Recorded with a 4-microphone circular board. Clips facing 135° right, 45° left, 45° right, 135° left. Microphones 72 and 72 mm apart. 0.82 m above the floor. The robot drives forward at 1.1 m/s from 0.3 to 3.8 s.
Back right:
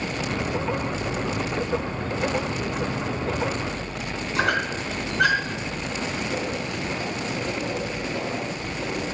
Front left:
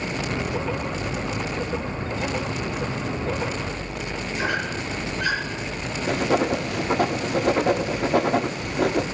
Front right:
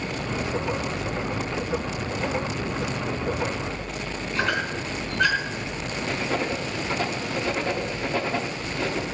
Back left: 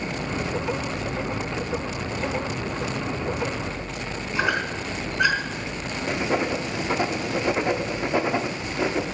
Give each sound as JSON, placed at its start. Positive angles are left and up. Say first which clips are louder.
{"t": 4.3, "sound": "a squeak", "louder": "back right 3 dB, back left 1 dB", "azimuth_deg": -145, "distance_m": 4.0}
{"t": 6.1, "sound": "writing", "louder": "front left 11 dB, back left 3 dB", "azimuth_deg": 65, "distance_m": 1.1}